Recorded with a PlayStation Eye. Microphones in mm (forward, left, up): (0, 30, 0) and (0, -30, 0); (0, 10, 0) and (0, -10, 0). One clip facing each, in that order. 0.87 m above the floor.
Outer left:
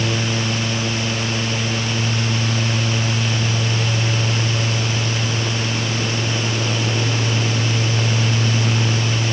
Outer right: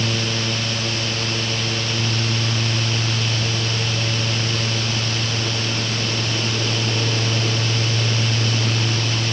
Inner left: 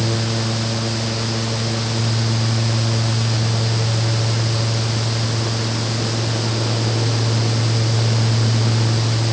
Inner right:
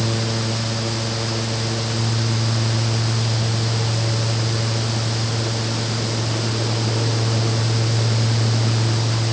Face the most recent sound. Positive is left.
No sound to turn to.